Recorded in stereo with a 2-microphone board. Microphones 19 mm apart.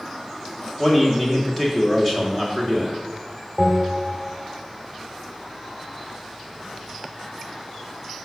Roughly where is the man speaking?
Centre.